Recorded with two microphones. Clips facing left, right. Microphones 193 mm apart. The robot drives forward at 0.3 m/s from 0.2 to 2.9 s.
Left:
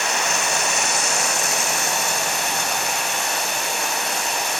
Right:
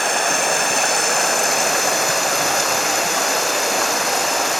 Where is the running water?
55° right (ahead or behind), 1.5 m; by 4.6 s 90° right, 1.2 m.